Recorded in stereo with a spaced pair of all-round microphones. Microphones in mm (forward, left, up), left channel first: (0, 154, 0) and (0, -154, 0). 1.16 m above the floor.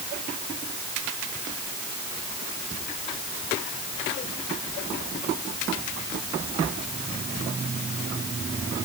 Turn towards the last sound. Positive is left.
No sound to turn to.